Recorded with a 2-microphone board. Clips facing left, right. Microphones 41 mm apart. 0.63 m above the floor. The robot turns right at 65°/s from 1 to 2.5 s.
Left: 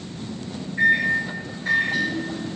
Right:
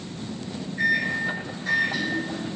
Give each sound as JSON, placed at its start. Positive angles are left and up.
{"t": 0.8, "sound": "a microwave", "azimuth_deg": 80, "distance_m": 0.7}